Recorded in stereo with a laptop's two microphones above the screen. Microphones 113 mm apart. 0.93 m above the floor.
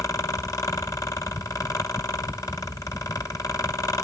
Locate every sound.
0.0 s a fan: 30° left (ahead or behind), 0.8 m